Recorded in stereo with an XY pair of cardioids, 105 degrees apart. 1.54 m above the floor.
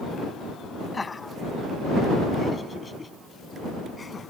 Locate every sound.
0.9 s laughter: 20° left; by 4.3 s 25° left